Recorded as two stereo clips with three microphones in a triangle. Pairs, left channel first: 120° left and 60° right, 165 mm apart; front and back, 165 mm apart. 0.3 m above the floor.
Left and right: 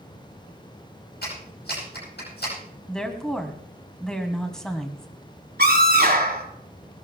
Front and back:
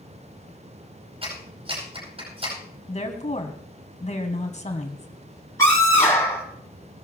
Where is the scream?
70° right, 4.5 m.